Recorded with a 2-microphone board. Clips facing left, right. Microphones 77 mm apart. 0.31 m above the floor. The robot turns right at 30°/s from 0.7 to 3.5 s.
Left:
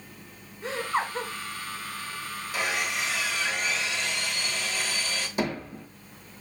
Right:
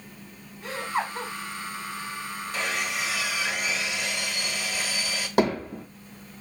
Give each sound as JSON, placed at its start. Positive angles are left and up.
{"t": 0.6, "sound": "laughter", "side_deg": 30, "distance_m": 1.8}
{"t": 2.5, "sound": "sawing", "side_deg": 5, "distance_m": 0.9}
{"t": 5.4, "sound": "hammering", "side_deg": -90, "distance_m": 3.0}